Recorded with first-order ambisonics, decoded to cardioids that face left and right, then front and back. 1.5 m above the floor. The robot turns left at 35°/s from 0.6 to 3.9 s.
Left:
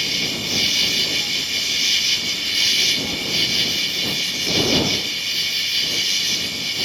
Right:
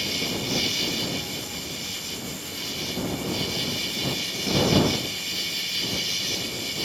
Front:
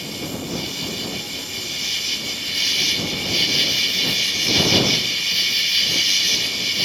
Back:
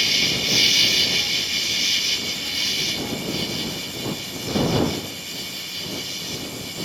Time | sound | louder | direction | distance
0.0 | an insect | left 6 dB, back 10 dB | 150° left | ?